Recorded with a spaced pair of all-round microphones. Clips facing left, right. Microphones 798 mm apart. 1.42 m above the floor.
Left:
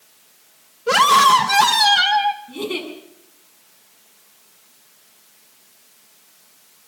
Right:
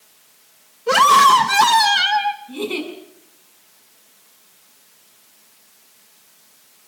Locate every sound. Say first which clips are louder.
0.9 s a scream: right 1 dB; 20° left (ahead or behind), 1.8 m
2.5 s a giggle: right 4 dB; 45° left (ahead or behind), 6 m